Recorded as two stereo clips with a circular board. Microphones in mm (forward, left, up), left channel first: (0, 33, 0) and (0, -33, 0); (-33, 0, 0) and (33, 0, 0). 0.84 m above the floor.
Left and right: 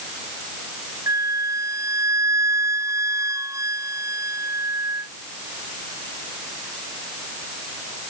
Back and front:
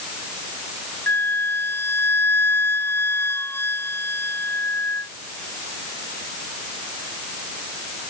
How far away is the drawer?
I don't hear a drawer.